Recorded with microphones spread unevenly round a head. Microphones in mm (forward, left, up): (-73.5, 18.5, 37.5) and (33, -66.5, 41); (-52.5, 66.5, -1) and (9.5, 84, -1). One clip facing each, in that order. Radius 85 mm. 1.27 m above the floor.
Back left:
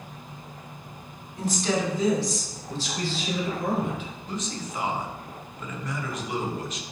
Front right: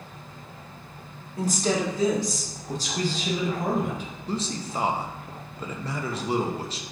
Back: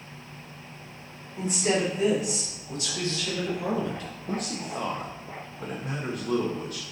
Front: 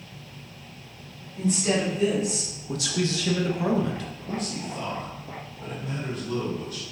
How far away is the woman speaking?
About 3 m.